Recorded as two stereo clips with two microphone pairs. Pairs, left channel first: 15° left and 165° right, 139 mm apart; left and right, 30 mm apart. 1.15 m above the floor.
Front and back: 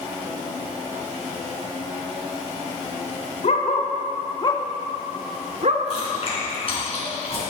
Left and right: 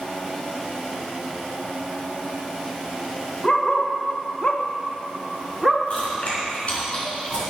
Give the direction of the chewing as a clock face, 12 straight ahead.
10 o'clock.